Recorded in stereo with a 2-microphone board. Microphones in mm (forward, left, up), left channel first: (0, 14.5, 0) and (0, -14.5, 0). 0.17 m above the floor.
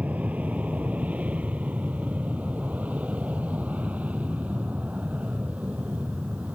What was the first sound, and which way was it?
An aircraft, 60° right (ahead or behind).